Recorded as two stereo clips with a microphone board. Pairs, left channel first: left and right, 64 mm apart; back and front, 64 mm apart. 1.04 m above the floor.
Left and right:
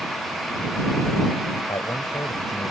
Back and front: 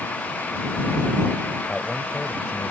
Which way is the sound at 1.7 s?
95° left.